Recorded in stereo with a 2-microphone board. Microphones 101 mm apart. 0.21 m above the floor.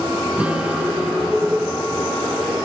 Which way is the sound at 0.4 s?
10° right (ahead or behind).